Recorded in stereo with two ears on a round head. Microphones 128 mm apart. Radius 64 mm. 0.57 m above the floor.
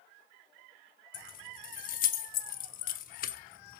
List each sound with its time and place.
1.1 s keys jangling: 65° left (ahead or behind), 1.0 m